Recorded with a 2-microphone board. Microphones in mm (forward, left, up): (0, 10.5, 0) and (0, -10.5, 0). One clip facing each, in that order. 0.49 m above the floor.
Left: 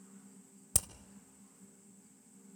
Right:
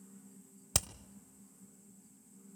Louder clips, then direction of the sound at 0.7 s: Right 2 dB; 35° right (ahead or behind).